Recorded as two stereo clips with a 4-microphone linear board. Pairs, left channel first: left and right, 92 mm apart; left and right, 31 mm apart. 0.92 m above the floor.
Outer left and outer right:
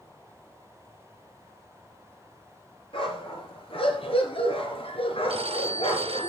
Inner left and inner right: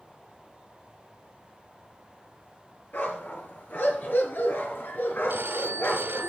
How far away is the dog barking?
About 5 m.